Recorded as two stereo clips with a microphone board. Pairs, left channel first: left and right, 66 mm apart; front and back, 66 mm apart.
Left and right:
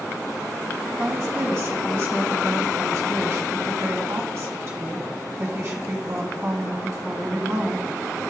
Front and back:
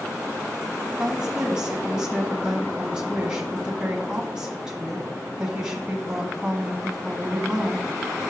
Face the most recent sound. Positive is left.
turn(degrees=-105)